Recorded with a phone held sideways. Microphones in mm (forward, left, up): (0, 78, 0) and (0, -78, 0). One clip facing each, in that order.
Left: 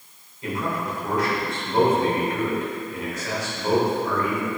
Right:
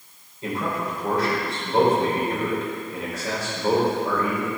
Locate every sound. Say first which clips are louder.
0.4 s a man speaking: even; 35° right (ahead or behind), 3 m